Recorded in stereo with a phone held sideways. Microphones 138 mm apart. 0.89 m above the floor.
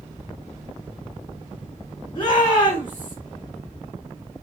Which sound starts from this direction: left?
A shout, at 2.1 s.